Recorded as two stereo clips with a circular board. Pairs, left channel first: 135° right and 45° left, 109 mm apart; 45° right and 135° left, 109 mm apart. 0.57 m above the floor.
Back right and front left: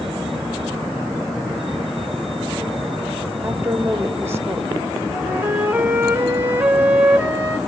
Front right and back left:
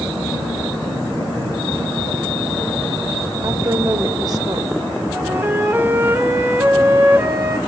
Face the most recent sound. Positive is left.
turn(degrees=95)